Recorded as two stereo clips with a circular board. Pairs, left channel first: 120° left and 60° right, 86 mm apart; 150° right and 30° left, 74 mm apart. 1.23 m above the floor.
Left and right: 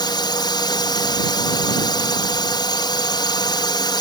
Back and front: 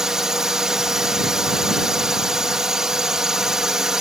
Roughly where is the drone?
Left.